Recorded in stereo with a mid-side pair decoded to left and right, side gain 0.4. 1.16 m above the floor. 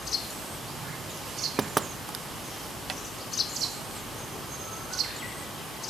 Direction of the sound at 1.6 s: 25° right.